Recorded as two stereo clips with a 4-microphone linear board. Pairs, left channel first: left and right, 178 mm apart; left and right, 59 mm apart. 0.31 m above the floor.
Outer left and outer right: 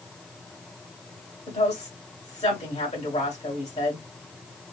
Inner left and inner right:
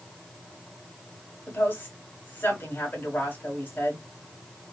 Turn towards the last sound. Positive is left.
turn(degrees=40)  # may be behind; listen again after turning